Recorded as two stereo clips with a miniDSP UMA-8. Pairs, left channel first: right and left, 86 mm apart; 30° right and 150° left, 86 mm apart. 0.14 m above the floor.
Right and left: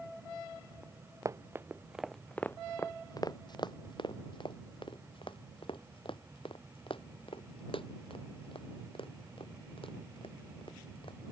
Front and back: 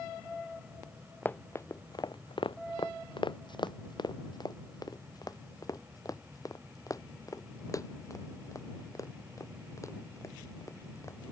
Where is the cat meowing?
I don't hear a cat meowing.